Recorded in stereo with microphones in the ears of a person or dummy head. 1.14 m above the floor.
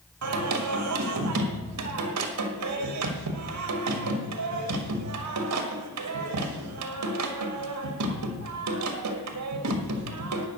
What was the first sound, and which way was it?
Singing, 85° right.